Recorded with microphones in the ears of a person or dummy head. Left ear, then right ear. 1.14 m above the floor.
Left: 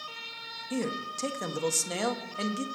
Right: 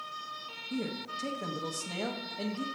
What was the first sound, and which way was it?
A man speaking, 70° left (ahead or behind).